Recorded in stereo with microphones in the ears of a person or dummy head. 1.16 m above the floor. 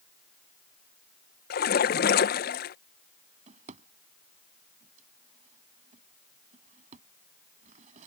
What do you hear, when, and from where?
1.5 s a splash: 50° left (ahead or behind)
3.5 s a drawer: 45° right (ahead or behind)